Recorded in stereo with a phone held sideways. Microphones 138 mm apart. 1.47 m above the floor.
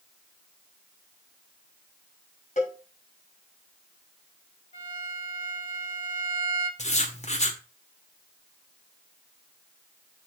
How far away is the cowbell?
About 5 m.